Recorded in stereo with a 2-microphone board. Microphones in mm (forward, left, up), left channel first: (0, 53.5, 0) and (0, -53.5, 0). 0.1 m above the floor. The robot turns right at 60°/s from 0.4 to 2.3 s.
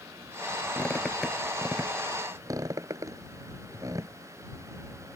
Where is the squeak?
20° left (ahead or behind); by 4.1 s 35° right (ahead or behind).